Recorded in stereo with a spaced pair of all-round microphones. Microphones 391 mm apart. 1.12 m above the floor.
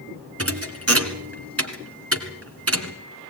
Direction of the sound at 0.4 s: 35° right (ahead or behind).